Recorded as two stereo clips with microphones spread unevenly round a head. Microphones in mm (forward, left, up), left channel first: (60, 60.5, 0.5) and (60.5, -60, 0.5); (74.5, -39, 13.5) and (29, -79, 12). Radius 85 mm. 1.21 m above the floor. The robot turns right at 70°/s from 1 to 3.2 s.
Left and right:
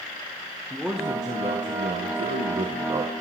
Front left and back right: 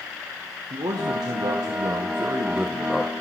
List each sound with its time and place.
0.7 s a man speaking: 175° right, 0.9 m; by 3.1 s 25° right, 0.9 m